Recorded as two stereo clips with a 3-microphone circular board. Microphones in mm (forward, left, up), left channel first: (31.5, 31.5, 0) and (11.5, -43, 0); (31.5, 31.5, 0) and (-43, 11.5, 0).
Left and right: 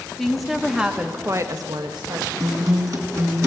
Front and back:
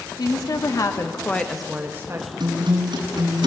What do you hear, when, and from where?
0.2 s a woman speaking: 10° right, 2.5 m; by 2.3 s 120° right, 1.6 m
2.4 s a guitar: 150° right, 4 m